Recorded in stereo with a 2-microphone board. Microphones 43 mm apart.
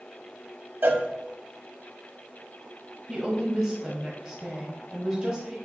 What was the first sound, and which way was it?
A cowbell, 55° right (ahead or behind).